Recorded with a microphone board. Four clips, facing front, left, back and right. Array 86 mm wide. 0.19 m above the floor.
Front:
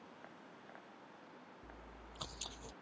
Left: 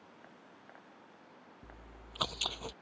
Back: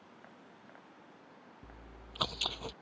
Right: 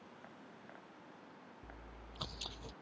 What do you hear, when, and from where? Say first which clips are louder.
1.6 s chewing: even, back 1 dB; 140° left